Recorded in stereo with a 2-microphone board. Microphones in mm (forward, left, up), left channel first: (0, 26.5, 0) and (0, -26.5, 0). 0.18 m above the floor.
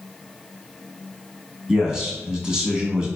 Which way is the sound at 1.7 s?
15° right (ahead or behind).